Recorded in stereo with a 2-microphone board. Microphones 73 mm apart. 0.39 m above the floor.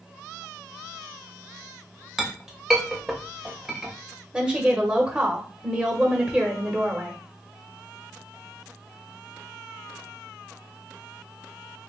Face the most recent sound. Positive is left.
turn(degrees=-15)  # may be behind; listen again after turning